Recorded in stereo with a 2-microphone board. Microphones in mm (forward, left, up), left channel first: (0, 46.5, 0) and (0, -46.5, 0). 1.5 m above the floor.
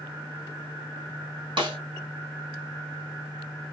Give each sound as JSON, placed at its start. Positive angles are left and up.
{"t": 1.6, "sound": "a snare drum", "side_deg": -60, "distance_m": 1.2}